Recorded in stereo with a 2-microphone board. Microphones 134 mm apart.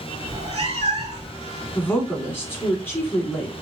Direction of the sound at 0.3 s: 50° right (ahead or behind).